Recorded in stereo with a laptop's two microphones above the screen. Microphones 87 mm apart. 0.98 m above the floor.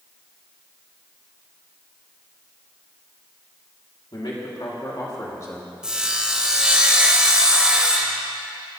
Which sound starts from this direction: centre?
Sawing, at 5.8 s.